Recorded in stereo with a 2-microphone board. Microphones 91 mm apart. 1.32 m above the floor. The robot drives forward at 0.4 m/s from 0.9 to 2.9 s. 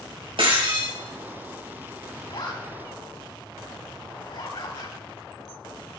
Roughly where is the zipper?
Left.